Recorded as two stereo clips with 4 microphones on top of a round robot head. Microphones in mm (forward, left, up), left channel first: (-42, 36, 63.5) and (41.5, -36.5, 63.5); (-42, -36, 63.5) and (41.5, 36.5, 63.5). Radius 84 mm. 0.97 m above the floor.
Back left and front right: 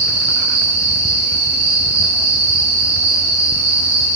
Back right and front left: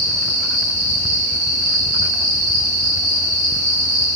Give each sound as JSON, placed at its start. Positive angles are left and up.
{"t": 0.0, "sound": "an insect", "azimuth_deg": 40, "distance_m": 2.5}